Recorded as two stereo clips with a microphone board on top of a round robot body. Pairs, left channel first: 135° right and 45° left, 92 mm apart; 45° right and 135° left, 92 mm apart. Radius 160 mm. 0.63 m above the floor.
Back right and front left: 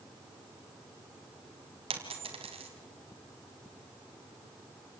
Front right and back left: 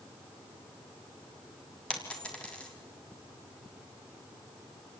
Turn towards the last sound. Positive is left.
turn(degrees=35)